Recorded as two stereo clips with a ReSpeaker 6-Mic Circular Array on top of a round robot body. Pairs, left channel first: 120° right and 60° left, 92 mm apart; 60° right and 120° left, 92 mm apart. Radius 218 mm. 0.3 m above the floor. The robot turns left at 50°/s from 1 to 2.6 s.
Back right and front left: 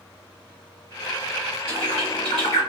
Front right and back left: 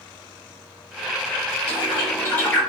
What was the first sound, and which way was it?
A bird, 90° right.